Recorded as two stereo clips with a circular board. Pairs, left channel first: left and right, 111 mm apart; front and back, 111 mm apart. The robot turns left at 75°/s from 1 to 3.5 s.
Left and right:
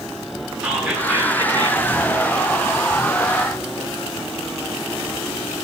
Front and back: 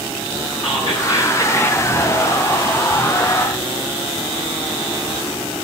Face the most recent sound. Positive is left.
turn(degrees=155)